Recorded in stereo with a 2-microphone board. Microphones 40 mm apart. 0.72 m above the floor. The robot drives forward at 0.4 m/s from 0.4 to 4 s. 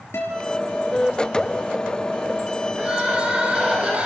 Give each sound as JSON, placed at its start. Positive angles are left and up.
{"t": 0.1, "sound": "a guitar", "side_deg": 80, "distance_m": 5.0}
{"t": 2.8, "sound": "crying", "side_deg": -30, "distance_m": 4.0}